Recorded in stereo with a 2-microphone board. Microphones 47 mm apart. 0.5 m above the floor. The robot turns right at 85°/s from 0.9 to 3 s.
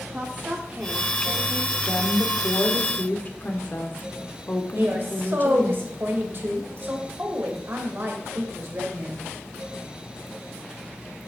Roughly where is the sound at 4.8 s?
Right.